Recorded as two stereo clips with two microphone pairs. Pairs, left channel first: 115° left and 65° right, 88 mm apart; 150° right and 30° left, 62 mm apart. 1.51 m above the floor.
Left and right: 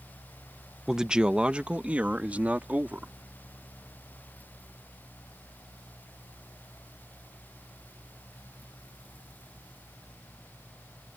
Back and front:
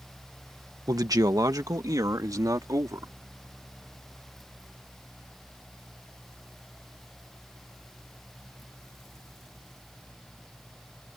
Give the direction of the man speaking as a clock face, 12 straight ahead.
11 o'clock.